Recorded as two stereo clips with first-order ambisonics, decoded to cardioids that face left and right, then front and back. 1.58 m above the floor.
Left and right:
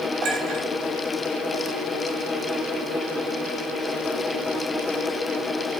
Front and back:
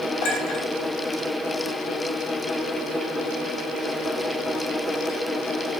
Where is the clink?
45° right, 5.5 m.